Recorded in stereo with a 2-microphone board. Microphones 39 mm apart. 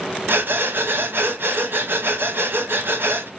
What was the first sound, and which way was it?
Breathing, 65° right (ahead or behind).